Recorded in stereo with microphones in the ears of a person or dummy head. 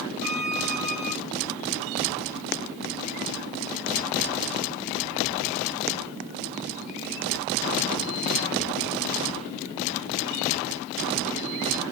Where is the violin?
55° right (ahead or behind), 3 m.